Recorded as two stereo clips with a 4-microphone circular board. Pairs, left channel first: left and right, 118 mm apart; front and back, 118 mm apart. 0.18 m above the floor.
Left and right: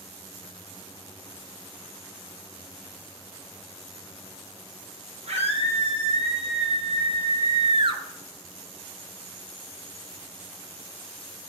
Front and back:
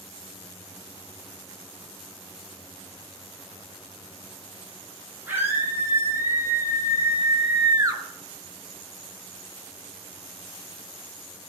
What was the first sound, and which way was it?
A scream, 110° right.